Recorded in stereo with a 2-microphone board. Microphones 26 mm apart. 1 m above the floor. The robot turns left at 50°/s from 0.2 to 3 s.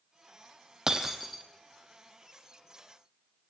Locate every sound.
0.9 s breaking glass: 25° right (ahead or behind), 2.5 m; by 1.4 s 5° left (ahead or behind), 2.5 m